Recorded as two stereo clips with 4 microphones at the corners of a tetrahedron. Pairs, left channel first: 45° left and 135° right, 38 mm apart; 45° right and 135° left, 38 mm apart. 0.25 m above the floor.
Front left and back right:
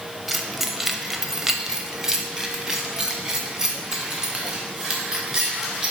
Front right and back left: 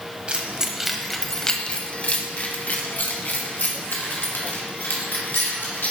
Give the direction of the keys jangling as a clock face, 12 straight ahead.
7 o'clock.